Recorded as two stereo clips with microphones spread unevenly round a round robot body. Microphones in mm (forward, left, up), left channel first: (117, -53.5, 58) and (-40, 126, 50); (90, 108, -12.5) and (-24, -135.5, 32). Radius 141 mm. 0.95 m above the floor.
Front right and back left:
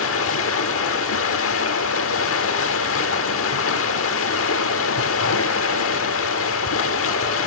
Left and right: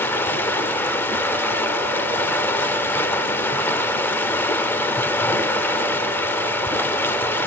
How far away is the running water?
About 1.1 m.